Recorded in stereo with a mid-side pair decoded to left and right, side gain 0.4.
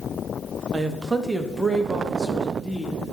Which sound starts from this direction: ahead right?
A man speaking, at 0.7 s.